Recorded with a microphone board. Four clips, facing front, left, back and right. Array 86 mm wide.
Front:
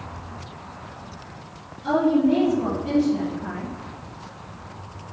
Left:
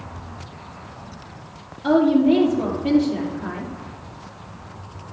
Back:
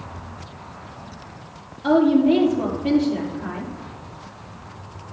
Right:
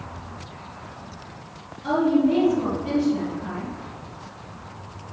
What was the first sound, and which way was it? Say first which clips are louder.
A woman speaking: left 4 dB, back 3 dB; 150° left.